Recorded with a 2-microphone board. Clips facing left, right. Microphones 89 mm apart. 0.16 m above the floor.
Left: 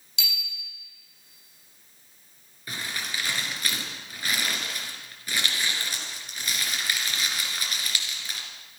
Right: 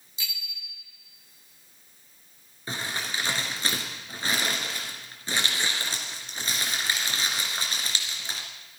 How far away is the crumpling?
About 2.5 m.